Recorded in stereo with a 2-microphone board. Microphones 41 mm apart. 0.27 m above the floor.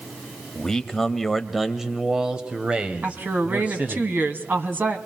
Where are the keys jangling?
I don't hear keys jangling.